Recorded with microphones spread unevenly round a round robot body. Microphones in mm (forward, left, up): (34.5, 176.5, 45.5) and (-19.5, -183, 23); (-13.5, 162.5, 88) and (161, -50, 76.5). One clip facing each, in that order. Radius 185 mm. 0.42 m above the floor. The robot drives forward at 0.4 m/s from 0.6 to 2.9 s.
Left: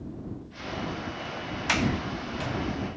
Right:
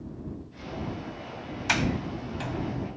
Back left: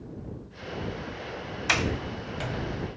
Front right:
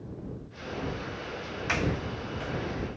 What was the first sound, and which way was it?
A sliding door, 175° left.